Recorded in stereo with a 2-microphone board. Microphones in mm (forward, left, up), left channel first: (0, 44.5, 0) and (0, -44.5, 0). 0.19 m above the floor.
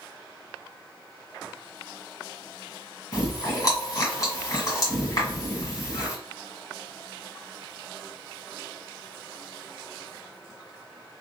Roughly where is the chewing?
Left.